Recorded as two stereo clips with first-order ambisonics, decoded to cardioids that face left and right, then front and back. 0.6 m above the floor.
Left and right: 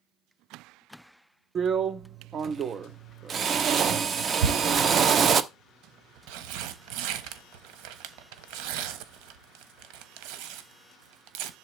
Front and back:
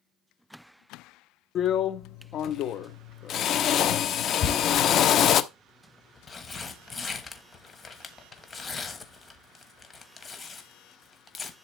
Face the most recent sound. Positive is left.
turn(degrees=-70)